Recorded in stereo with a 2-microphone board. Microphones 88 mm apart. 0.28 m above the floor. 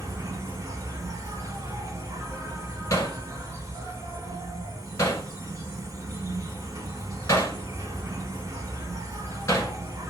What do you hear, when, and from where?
0.0 s an insect: 40° right (ahead or behind), 0.8 m
2.9 s hammering: 35° left (ahead or behind), 1.0 m